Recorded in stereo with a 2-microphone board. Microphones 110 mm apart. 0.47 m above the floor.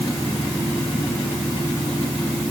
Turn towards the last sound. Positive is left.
No sound to turn to.